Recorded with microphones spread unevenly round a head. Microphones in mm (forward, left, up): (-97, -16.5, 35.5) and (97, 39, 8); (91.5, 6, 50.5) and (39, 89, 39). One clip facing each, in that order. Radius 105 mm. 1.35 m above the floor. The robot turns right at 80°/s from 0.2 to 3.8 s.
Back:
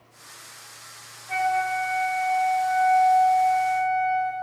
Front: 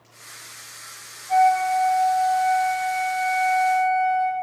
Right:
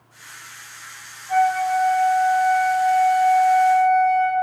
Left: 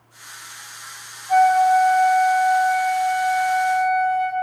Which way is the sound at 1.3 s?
155° right.